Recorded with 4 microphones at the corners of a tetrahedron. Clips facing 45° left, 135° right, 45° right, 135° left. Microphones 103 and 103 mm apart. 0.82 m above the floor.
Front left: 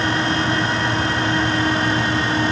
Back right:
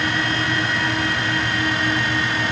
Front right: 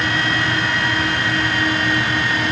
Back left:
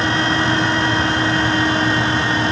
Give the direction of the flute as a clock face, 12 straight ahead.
I don't hear a flute.